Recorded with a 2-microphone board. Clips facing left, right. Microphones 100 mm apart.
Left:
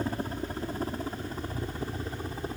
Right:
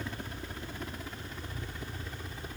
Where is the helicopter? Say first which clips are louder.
Left 8 dB; 40° left (ahead or behind); by 2.6 s 35° left (ahead or behind).